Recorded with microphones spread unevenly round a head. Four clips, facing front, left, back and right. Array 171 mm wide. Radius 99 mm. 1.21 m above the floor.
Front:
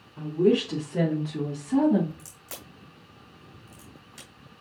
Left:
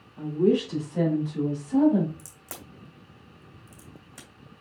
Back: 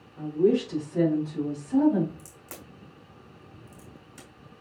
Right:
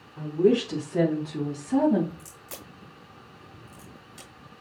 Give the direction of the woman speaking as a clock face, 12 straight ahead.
2 o'clock.